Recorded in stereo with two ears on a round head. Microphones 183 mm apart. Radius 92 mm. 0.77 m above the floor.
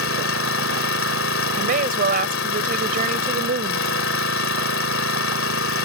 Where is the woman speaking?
40° right (ahead or behind).